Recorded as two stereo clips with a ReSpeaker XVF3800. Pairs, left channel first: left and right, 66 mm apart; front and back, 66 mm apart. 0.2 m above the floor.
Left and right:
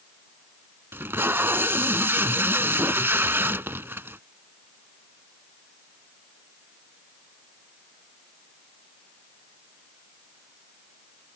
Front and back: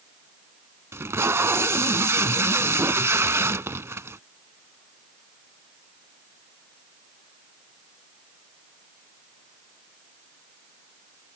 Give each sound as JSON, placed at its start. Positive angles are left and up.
{"t": 0.9, "sound": "tape being pulled", "azimuth_deg": -135}